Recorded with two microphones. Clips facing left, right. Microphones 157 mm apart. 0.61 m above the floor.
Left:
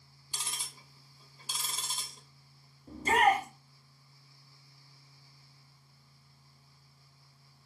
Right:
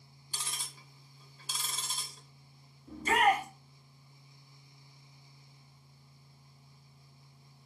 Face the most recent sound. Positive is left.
turn(degrees=35)  # may be behind; listen again after turning